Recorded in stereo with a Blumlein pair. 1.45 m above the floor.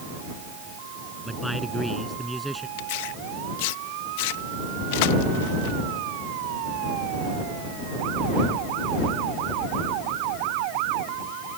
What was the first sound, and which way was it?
A man speaking, 5° right.